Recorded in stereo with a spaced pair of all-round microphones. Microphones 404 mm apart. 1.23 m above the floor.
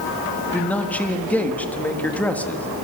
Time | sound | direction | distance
0.5 | a man speaking | 5° left (ahead or behind) | 1.6 m